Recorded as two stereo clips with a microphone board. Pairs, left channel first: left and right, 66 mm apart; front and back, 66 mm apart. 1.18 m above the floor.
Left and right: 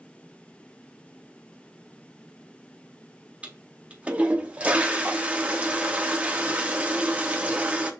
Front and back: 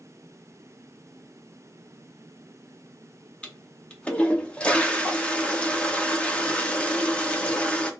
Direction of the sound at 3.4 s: 45° right.